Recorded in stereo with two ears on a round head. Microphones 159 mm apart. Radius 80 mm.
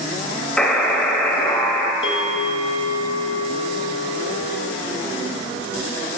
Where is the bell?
35° left (ahead or behind), 0.8 m.